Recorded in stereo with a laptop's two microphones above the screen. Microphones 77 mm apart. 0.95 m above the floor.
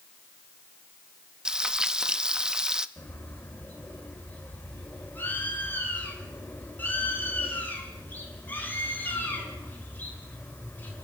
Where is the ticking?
I don't hear ticking.